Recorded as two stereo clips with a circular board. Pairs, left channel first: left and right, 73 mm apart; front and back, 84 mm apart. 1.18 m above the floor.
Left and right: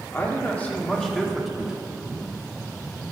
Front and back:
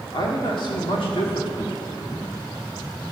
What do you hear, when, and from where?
0.1 s a man speaking: 30° left, 2.5 m; by 2.3 s 15° right, 2.5 m